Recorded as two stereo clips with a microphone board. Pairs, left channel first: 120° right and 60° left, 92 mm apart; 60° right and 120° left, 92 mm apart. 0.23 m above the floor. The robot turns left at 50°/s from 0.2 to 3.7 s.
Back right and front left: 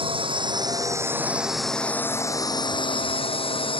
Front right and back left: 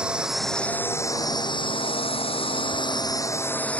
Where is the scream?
I don't hear a scream.